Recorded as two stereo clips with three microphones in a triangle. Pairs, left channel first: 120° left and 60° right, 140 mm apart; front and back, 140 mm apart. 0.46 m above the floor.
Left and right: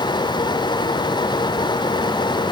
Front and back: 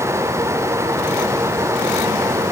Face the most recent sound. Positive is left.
No sound to turn to.